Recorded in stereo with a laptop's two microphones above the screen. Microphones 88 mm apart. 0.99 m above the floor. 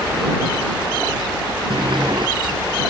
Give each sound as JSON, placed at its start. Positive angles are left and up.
{"t": 1.7, "sound": "a sliding door", "side_deg": -60}